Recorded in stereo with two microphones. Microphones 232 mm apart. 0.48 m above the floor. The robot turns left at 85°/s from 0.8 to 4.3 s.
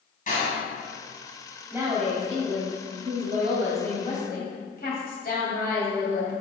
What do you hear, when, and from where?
0.3 s a door slam: 35° left (ahead or behind), 2.5 m
1.7 s a woman speaking: 5° right, 3 m; by 6.4 s 135° left, 3 m